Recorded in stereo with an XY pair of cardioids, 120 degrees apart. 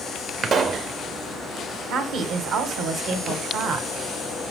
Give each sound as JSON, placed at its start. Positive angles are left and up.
{"t": 0.4, "sound": "a pop", "azimuth_deg": -45, "distance_m": 0.9}
{"t": 1.9, "sound": "a woman speaking", "azimuth_deg": -70, "distance_m": 2.0}